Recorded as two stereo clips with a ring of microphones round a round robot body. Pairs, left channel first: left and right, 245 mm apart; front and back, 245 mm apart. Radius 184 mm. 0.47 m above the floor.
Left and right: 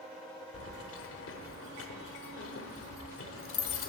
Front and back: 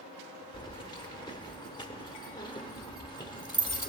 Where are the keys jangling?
70° left, 0.9 m.